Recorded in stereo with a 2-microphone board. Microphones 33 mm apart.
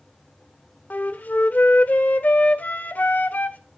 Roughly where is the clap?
I don't hear a clap.